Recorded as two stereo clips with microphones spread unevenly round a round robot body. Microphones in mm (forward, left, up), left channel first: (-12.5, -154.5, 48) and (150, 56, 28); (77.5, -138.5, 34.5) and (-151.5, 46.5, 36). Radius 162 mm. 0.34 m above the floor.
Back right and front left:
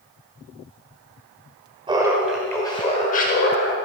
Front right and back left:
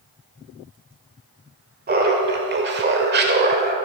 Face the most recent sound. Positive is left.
turn(degrees=-165)